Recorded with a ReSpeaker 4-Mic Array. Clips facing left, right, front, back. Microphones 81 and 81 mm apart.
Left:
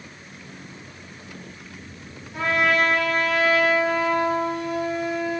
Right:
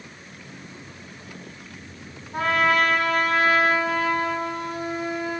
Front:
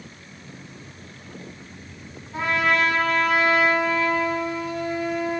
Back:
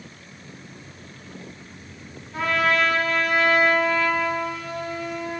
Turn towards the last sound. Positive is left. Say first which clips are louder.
# right 1 dB, even
turn(degrees=-70)